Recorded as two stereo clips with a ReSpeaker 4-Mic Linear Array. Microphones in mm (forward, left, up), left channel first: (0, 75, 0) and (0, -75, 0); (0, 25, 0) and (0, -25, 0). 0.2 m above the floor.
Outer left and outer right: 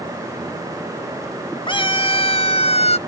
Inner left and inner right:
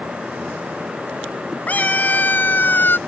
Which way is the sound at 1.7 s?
35° left (ahead or behind).